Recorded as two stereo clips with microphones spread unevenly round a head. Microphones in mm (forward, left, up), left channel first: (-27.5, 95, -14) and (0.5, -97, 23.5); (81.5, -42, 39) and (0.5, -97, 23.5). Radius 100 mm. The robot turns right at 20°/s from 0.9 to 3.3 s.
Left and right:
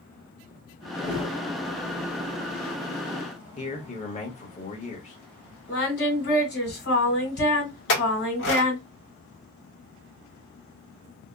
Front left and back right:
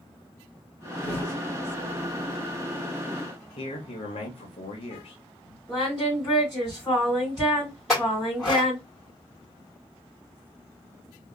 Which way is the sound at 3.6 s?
35° left.